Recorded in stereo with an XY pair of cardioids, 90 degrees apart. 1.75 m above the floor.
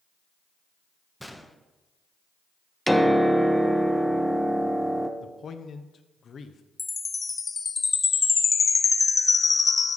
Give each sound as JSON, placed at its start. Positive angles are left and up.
{"t": 1.2, "sound": "a gunshot", "azimuth_deg": 0, "distance_m": 0.9}
{"t": 2.9, "sound": "a piano", "azimuth_deg": 0, "distance_m": 0.8}
{"t": 5.2, "sound": "a man speaking", "azimuth_deg": 55, "distance_m": 0.9}
{"t": 6.8, "sound": "a chime", "azimuth_deg": 35, "distance_m": 0.6}